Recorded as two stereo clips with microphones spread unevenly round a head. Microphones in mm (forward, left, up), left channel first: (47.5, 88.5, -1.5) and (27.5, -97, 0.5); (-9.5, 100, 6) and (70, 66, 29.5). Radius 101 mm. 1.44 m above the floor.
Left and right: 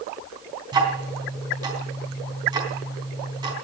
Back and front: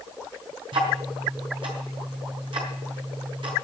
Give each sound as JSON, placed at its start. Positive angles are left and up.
{"t": 0.7, "sound": "ticking", "azimuth_deg": -30, "distance_m": 4.0}